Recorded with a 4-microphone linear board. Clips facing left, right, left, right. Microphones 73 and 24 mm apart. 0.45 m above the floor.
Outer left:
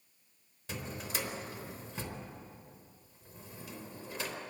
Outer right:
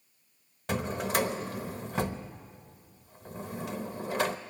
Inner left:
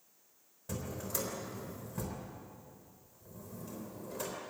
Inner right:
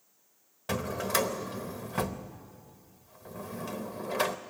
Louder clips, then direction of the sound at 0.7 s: Outer right 11 dB, inner right 10 dB; 60° right (ahead or behind).